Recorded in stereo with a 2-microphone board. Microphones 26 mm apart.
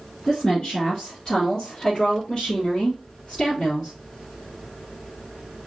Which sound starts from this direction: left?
A woman speaking, at 0.3 s.